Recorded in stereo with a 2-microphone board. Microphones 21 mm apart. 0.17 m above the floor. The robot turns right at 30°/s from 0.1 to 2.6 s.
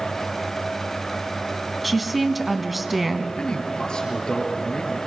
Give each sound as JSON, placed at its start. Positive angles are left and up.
{"t": 1.8, "sound": "a woman speaking", "side_deg": 5, "distance_m": 1.2}
{"t": 3.4, "sound": "a man speaking", "side_deg": 50, "distance_m": 3.5}